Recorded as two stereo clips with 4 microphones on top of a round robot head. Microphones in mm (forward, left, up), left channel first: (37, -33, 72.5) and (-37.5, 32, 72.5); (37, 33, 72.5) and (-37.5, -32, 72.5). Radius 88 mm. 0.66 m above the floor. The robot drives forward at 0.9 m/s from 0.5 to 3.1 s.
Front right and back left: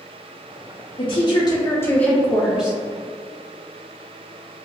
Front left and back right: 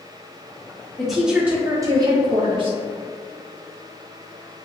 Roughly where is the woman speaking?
Ahead right.